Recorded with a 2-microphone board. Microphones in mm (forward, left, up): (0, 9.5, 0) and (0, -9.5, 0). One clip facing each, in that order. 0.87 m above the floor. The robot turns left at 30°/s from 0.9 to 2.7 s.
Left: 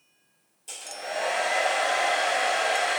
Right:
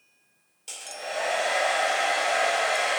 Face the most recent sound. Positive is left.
turn(degrees=-95)